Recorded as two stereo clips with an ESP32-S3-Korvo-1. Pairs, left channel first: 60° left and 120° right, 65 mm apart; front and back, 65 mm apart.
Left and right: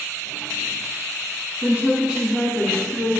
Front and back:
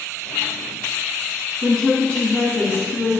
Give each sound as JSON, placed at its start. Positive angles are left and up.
{"t": 1.6, "sound": "a woman speaking", "azimuth_deg": -75, "distance_m": 1.3}